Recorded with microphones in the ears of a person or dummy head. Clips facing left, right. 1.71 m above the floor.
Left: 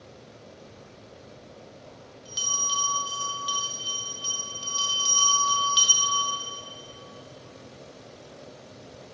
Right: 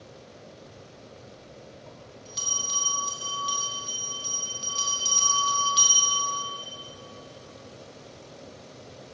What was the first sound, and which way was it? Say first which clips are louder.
A bell: even; 15° left (ahead or behind).